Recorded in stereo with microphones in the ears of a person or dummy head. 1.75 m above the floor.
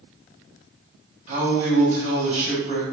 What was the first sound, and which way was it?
A man speaking, 35° right (ahead or behind).